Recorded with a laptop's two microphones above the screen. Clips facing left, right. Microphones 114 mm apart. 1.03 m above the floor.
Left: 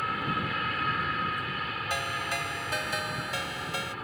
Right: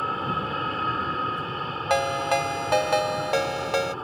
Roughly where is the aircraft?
Right.